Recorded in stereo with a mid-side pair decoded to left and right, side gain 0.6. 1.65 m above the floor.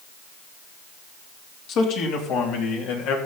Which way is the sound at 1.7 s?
65° left.